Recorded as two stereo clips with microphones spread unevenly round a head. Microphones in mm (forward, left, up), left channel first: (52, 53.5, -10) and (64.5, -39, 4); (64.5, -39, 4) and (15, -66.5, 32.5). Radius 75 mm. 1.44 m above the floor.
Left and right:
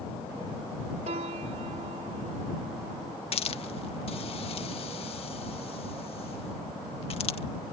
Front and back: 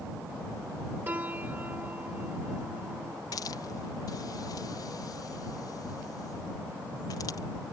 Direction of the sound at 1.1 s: 95° right.